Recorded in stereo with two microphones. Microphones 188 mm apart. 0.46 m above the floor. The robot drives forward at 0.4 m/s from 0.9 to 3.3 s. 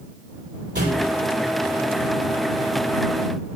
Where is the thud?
70° right (ahead or behind), 7 m.